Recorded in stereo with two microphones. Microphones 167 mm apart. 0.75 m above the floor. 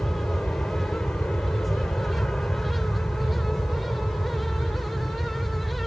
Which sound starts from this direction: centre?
An aircraft, at 0.0 s.